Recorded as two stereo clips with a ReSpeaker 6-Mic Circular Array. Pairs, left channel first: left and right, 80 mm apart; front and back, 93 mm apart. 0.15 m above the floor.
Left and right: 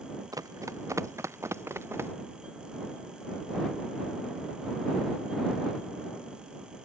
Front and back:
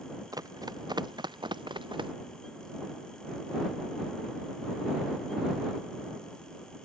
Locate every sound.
0.3 s running footsteps: 130° right; by 2.1 s 150° right